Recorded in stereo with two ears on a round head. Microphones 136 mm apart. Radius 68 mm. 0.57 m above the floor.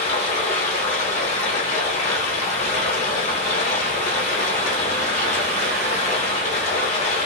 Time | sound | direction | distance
0.0 | running water | 50° left (ahead or behind) | 1.0 m